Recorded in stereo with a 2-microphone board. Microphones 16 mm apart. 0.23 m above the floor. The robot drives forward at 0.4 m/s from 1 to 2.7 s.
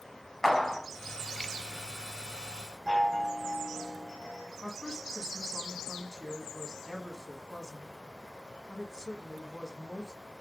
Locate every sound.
0.4 s a clap: 20° left (ahead or behind), 1.4 m
2.9 s a chime: 50° right (ahead or behind), 4.5 m
4.6 s a woman speaking: 40° left (ahead or behind), 1.4 m